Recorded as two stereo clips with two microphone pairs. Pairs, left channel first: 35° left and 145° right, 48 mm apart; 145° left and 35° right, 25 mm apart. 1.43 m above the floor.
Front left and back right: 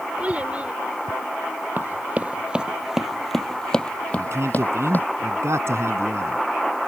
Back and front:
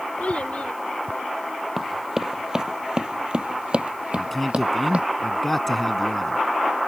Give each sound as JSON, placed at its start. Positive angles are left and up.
{"t": 0.2, "sound": "a child speaking", "azimuth_deg": 155}
{"t": 1.8, "sound": "running footsteps", "azimuth_deg": -110}
{"t": 4.2, "sound": "a man speaking", "azimuth_deg": -130}